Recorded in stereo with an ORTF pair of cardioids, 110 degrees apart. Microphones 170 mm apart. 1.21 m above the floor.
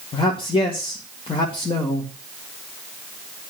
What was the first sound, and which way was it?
A man speaking, 30° left.